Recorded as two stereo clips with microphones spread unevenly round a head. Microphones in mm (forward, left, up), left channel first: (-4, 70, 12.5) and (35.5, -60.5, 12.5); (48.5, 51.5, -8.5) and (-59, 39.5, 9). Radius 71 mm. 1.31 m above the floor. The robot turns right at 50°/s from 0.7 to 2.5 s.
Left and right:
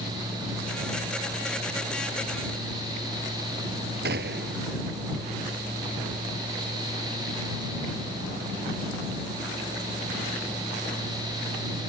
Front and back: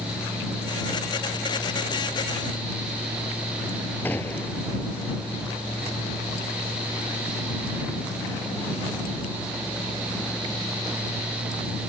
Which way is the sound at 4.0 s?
75° right.